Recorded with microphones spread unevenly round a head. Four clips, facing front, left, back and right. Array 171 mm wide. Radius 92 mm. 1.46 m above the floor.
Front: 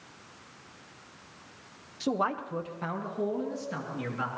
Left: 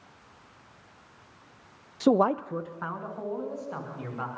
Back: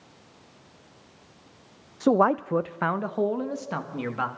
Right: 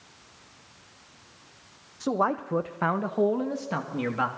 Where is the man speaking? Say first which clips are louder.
Left 4 dB, back 9 dB; 135° left, 0.7 m; by 4.3 s 125° right, 3 m.